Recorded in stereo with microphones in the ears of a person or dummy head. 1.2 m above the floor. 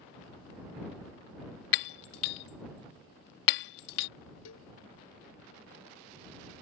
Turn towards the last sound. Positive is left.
turn(degrees=75)  # may be behind; listen again after turning